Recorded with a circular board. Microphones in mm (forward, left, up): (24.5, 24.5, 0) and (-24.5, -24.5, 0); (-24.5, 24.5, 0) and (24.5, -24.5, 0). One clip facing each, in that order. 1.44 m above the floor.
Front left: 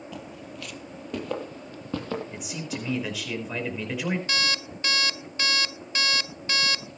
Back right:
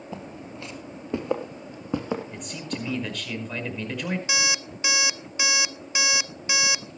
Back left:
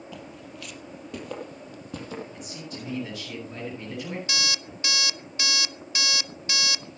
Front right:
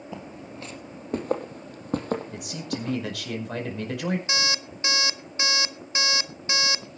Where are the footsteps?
90° right, 1.9 m; by 3.0 s 60° right, 3 m.